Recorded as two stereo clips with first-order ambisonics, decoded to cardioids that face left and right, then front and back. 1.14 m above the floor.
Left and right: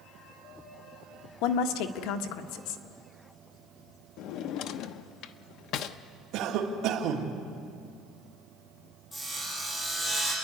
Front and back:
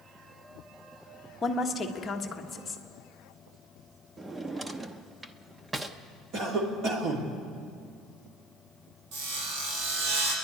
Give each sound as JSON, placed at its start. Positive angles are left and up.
{"t": 1.4, "sound": "a woman speaking", "azimuth_deg": 75, "distance_m": 1.4}
{"t": 4.2, "sound": "a drawer", "azimuth_deg": 105, "distance_m": 0.7}
{"t": 6.3, "sound": "a cough", "azimuth_deg": -130, "distance_m": 2.5}
{"t": 9.1, "sound": "sawing", "azimuth_deg": 165, "distance_m": 6.0}